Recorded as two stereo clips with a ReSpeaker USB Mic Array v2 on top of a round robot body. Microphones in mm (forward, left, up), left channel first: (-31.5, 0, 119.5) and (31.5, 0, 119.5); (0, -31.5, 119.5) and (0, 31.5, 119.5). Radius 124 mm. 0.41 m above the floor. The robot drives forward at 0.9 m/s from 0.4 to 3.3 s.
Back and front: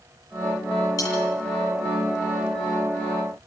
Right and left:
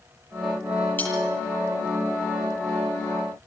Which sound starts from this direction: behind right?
Cutlery clinking, at 1.0 s.